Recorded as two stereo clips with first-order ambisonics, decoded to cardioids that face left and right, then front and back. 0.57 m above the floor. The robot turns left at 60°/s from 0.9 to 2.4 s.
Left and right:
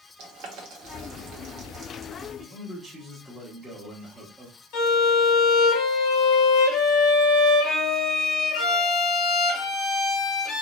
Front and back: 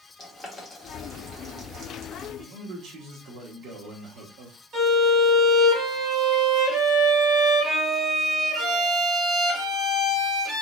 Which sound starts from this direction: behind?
A man speaking, at 2.4 s.